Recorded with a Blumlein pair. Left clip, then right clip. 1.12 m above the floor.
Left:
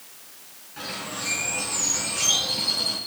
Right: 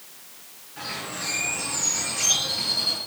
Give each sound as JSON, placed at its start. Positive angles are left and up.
{"t": 0.8, "sound": "a bird", "azimuth_deg": 15, "distance_m": 3.5}